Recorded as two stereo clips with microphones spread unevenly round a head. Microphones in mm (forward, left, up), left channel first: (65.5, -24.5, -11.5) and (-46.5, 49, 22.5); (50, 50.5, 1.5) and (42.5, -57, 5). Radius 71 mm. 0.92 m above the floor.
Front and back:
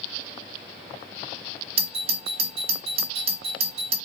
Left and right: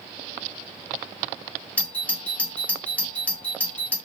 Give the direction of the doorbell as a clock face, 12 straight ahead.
7 o'clock.